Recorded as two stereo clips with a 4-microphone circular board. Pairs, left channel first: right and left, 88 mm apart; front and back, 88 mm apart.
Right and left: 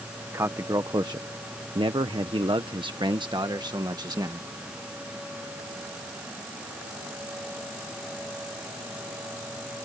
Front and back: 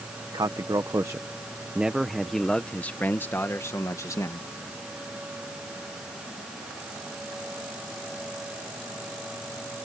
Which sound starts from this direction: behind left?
A man speaking, at 0.3 s.